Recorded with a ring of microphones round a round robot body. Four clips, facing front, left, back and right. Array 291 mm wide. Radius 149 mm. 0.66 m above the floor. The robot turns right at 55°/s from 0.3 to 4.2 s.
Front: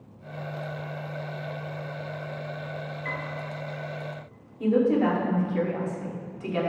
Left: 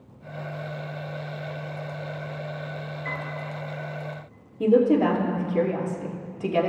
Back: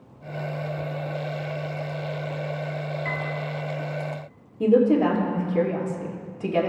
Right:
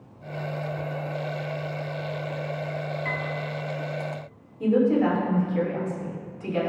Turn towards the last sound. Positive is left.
turn(degrees=130)